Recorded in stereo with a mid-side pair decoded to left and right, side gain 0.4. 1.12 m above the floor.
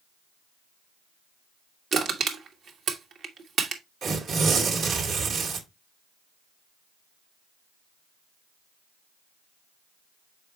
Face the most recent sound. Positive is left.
turn(degrees=-65)